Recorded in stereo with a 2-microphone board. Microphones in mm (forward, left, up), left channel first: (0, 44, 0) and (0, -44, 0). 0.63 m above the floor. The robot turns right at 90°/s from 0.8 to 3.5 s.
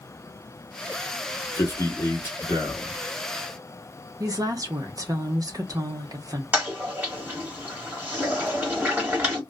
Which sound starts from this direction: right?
A woman speaking, at 4.2 s.